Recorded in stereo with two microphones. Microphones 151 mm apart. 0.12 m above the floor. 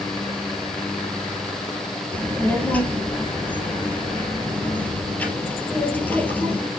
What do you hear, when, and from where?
2.1 s a child speaking: 10° left (ahead or behind), 2.5 m